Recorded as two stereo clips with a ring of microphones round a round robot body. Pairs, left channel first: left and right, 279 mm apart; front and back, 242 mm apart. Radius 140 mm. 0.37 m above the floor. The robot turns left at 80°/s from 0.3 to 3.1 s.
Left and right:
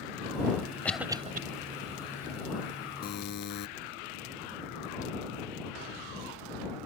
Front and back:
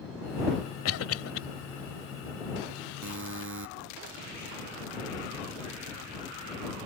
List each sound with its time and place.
0.8 s a cough: 5° left; by 1.4 s 35° right
3.0 s a buzzer: 150° left; by 3.7 s 145° left